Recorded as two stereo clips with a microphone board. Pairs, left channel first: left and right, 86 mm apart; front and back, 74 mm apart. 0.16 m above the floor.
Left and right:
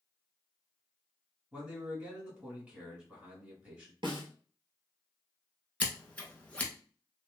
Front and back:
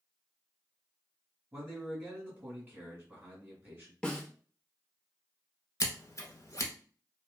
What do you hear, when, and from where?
1.5 s a man speaking: 145° right, 1.5 m
4.0 s a snare drum: 75° right, 0.8 m
5.8 s scissors: 20° left, 0.6 m